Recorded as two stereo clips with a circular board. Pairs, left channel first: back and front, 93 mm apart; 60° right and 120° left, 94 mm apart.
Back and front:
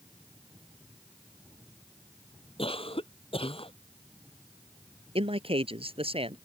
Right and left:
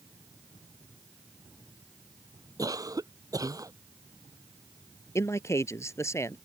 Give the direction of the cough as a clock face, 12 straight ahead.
6 o'clock.